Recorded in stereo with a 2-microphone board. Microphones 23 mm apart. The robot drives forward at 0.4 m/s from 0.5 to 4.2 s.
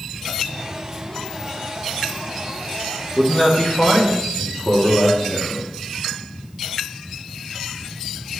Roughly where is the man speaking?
Left.